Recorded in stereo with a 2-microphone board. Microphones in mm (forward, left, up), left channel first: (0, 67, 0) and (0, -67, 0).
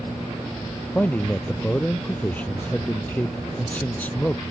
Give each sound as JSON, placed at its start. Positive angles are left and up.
{"t": 0.9, "sound": "a man speaking", "side_deg": 10}